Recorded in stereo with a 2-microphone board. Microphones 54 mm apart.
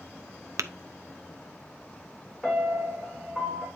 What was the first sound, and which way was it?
Tapping, 70° right (ahead or behind).